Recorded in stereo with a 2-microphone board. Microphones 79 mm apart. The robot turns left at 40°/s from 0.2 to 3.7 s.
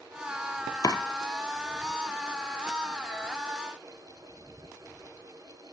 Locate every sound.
0.8 s chopping: 55° left (ahead or behind), 1.0 m; by 1.0 s 50° left (ahead or behind), 1.0 m